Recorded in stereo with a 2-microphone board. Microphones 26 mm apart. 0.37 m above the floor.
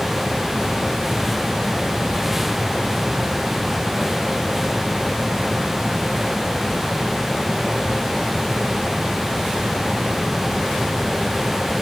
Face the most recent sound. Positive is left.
No sound to turn to.